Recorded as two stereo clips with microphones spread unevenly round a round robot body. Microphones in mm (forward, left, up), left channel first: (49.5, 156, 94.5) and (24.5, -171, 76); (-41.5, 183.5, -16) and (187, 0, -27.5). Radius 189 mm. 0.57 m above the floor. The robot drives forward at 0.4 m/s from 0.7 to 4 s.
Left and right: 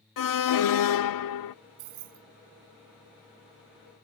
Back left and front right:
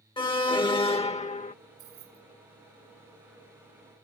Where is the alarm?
65° left; by 1.6 s 80° left.